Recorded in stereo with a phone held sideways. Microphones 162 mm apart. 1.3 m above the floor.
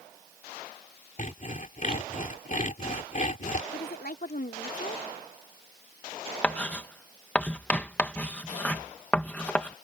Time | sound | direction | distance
1.2 | sawing | 55° left (ahead or behind) | ?
3.7 | a woman speaking | 70° left (ahead or behind) | ?
6.4 | writing | 10° left (ahead or behind) | ?